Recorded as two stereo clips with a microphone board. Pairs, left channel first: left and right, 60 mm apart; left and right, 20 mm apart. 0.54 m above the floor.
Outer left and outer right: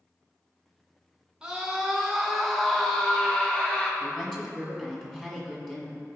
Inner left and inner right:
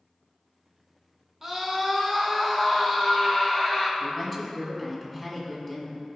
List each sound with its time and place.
1.4 s a scream: 15° right (ahead or behind), 1.1 m; by 3.9 s 20° left (ahead or behind), 1.3 m
4.0 s a woman speaking: 10° left (ahead or behind), 1.8 m